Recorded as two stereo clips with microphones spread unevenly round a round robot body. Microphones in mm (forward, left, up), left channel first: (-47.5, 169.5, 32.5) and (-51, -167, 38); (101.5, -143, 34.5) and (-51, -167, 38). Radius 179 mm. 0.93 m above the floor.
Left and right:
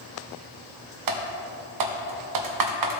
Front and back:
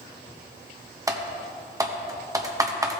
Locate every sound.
1.1 s typing on a keyboard: 100° right, 1.2 m